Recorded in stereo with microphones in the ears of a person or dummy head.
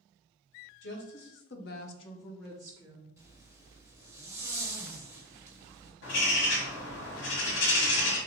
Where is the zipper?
15° right (ahead or behind), 0.9 m.